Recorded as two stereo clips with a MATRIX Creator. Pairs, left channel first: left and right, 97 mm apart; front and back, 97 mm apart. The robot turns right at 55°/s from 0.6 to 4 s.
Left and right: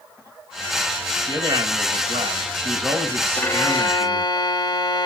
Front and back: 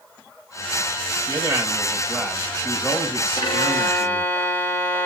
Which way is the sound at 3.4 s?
25° left.